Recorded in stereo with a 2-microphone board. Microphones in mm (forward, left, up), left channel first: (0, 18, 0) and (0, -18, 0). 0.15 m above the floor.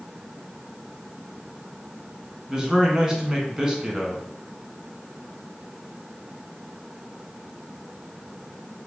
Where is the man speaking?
20° right (ahead or behind), 1.1 m.